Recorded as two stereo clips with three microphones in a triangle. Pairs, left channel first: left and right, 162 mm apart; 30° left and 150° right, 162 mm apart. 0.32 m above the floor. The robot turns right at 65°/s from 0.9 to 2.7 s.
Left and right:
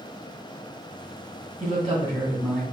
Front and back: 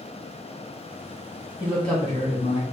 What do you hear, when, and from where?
1.6 s a man speaking: 70° right, 2.5 m; by 2.6 s 5° right, 2.5 m